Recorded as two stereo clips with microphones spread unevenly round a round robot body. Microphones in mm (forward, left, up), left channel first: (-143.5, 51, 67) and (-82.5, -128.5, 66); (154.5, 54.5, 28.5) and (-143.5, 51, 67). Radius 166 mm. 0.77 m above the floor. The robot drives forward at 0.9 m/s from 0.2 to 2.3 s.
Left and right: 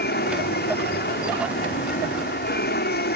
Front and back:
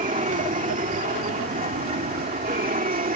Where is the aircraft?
115° left; by 3.2 s 120° left.